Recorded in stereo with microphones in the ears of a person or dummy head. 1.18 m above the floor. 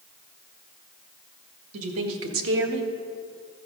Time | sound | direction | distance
1.7 | a woman speaking | 75° right (ahead or behind) | 2 m